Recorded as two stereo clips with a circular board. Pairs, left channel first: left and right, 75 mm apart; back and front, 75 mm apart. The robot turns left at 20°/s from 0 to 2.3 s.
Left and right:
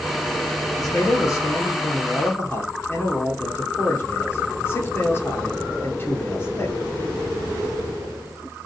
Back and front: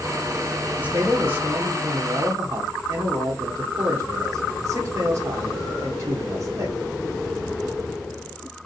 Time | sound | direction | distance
0.8 | a man speaking | 65° left | 2 m